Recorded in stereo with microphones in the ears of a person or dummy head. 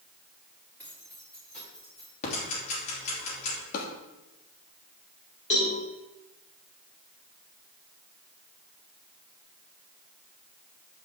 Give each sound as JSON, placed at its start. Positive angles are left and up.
{"t": 0.8, "sound": "keys jangling", "side_deg": 10, "distance_m": 4.5}
{"t": 2.2, "sound": "ticking", "side_deg": 35, "distance_m": 3.0}
{"t": 3.7, "sound": "a drawer", "side_deg": 45, "distance_m": 1.7}
{"t": 5.5, "sound": "a cowbell", "side_deg": 40, "distance_m": 3.0}